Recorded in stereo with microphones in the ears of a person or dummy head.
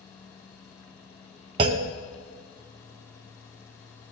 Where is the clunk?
25° right (ahead or behind), 0.5 m.